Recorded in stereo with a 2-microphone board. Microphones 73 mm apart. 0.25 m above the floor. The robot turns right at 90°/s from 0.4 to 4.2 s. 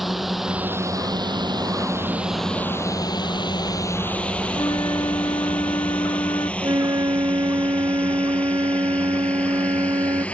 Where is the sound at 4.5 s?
70° left (ahead or behind).